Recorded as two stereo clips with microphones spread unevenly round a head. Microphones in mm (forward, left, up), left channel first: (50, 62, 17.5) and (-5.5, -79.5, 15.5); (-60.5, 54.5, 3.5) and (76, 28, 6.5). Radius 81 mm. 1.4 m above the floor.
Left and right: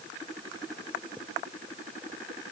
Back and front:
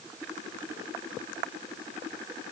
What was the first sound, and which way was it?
Only background noise.